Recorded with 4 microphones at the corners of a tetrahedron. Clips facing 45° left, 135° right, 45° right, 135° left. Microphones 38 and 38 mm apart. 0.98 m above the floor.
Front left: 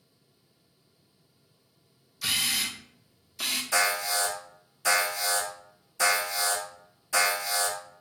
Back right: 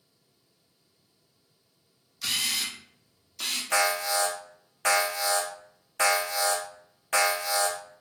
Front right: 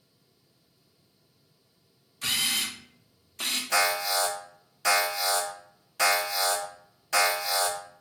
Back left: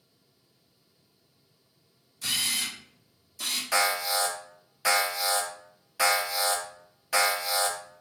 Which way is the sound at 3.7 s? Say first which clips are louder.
Back right 2 dB, front right 1 dB; 145° right.